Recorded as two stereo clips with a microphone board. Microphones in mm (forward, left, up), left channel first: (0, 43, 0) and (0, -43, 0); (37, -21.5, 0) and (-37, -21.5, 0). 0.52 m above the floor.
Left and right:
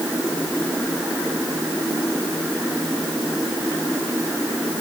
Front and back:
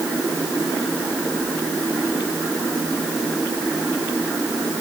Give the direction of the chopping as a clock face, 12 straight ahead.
No chopping in this recording.